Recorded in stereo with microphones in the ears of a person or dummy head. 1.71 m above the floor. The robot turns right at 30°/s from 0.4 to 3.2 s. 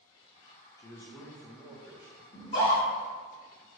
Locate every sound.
0.8 s a man speaking: 150° left, 0.5 m; by 2.2 s 165° right, 0.5 m
2.3 s a scream: 60° left (ahead or behind), 1.7 m; by 2.9 s 40° left (ahead or behind), 1.7 m